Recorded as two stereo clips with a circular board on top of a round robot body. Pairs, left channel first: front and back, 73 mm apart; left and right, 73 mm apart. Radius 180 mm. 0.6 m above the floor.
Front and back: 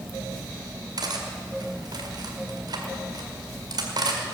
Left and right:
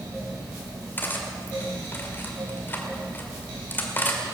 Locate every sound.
1.0 s cutlery clinking: 155° left, 2 m